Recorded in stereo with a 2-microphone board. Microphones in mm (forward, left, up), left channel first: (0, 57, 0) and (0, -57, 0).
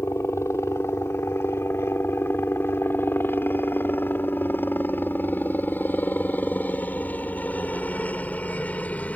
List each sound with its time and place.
0.0 s a helicopter: 25° left (ahead or behind); by 9.2 s 15° left (ahead or behind)